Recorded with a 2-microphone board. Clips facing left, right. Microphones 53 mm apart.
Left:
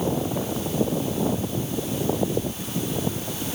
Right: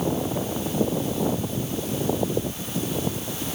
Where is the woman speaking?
No woman speaking in this recording.